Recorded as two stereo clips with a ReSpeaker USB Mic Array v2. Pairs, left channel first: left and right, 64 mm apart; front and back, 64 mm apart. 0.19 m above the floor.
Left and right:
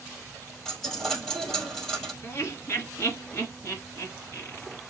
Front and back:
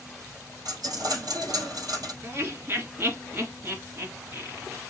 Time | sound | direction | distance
0.7 | a dropped coin | 170° left | 3 m
2.2 | laughter | 130° left | 2.5 m